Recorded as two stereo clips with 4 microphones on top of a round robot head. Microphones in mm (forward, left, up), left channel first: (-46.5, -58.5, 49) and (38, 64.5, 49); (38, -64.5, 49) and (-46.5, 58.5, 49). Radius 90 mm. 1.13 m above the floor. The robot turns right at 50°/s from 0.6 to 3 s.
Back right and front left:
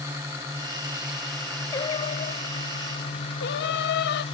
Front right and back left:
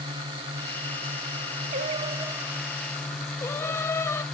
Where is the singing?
165° left; by 4.2 s 130° right.